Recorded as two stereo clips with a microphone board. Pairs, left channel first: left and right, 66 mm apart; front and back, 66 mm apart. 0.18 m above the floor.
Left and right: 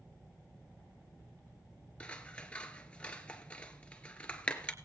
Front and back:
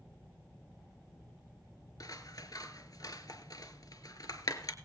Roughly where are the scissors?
Ahead.